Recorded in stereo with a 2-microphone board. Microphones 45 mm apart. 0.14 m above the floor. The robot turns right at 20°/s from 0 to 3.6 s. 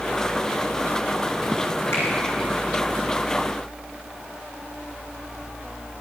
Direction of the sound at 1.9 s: 65° left (ahead or behind).